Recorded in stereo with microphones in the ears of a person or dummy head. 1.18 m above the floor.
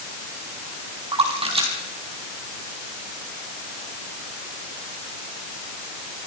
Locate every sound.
1.1 s a splash: 30° right (ahead or behind), 4.5 m